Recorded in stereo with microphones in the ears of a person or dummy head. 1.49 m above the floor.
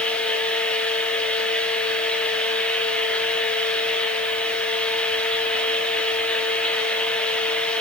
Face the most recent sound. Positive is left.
turn(degrees=5)  # may be behind; listen again after turning